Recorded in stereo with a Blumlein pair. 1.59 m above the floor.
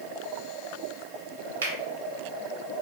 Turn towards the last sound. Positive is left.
turn(degrees=-70)